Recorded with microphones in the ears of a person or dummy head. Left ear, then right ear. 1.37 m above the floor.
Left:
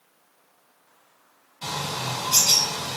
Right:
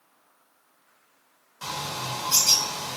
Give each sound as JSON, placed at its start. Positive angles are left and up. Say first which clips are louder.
{"t": 1.6, "sound": "a bird", "louder": "left 2 dB", "side_deg": -45, "distance_m": 1.0}